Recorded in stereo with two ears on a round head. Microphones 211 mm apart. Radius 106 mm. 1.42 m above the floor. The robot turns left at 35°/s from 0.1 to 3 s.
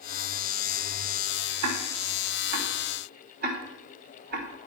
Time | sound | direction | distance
1.6 | ticking | 85° right | 3.5 m